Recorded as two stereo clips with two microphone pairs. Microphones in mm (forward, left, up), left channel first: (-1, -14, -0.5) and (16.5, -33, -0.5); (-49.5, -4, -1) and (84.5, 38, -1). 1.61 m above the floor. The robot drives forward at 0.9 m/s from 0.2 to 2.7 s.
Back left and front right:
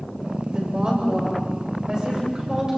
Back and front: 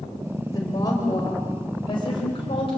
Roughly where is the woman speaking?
Right.